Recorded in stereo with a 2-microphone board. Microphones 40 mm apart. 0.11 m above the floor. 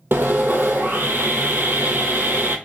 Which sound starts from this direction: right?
Sawing, at 0.1 s.